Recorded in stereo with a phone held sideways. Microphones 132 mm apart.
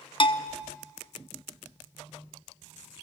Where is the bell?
40° left (ahead or behind), 0.8 m.